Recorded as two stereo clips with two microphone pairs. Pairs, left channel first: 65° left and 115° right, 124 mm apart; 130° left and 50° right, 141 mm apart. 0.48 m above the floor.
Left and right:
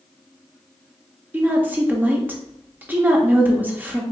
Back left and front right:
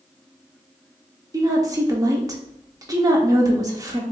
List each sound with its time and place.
1.3 s a woman speaking: 65° right, 0.7 m